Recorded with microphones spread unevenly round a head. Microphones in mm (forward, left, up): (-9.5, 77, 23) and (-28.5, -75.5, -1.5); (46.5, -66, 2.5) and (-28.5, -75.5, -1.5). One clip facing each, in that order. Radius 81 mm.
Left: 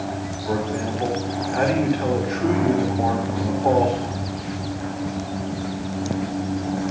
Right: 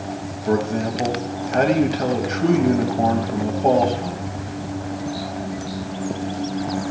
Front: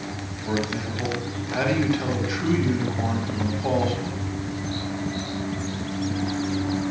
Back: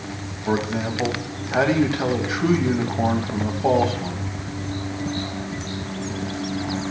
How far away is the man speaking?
About 2 m.